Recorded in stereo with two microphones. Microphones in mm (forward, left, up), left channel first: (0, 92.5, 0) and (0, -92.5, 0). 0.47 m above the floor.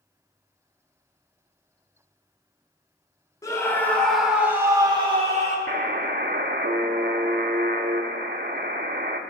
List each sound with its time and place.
3.4 s a scream: 20° left (ahead or behind), 1.8 m; by 5.6 s 40° right (ahead or behind), 1.6 m
5.7 s a buzzer: 60° right (ahead or behind), 0.6 m